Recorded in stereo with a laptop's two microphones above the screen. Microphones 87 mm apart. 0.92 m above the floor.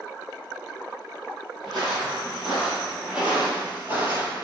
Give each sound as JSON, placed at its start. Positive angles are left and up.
{"t": 1.6, "sound": "footsteps", "side_deg": 5, "distance_m": 1.6}